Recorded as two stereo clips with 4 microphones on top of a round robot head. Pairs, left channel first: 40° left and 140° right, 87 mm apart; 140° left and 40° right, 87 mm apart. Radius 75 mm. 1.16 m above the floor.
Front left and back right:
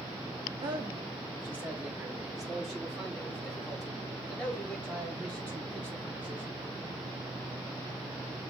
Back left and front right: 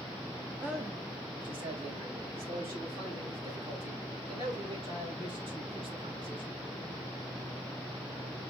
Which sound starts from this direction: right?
A man speaking, at 0.6 s.